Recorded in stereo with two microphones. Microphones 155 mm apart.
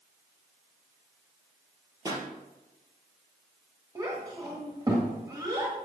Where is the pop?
25° right (ahead or behind), 2.5 m.